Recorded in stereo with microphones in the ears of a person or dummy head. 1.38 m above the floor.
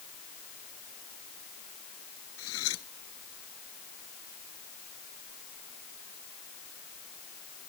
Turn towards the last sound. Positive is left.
turn(degrees=80)